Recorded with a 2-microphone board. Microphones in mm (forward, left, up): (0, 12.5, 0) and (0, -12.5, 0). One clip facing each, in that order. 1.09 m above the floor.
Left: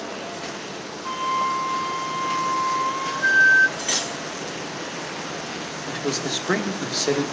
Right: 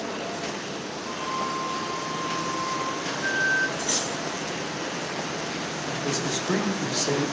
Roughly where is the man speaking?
Left.